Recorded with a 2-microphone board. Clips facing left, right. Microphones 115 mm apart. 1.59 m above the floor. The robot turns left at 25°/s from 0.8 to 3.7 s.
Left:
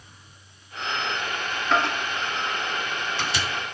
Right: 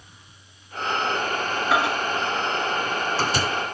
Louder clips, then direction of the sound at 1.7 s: Right 1 dB; 5° right (ahead or behind).